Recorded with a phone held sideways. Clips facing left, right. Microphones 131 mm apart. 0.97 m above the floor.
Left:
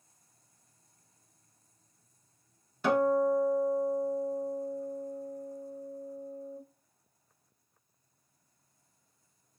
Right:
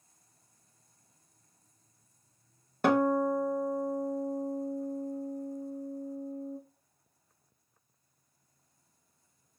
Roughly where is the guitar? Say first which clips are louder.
Even; right.